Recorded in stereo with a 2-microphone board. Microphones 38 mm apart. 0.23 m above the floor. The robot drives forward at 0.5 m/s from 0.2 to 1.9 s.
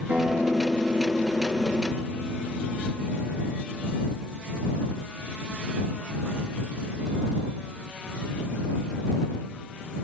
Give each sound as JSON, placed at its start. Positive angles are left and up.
{"t": 0.1, "sound": "a guitar", "side_deg": -80, "distance_m": 7.0}